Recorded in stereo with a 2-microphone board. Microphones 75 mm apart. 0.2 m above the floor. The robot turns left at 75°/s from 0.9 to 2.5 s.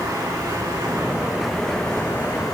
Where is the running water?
130° right, 5 m; by 2.5 s 110° left, 5 m.